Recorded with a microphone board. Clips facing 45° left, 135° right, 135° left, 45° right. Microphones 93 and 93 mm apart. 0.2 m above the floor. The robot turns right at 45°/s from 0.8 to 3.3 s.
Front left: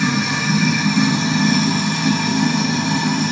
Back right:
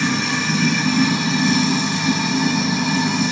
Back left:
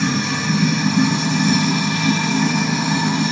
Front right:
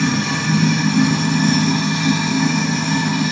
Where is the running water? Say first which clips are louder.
Front left 1 dB, front right 1 dB; 35° right, 6 m; by 3.3 s 75° left, 6 m.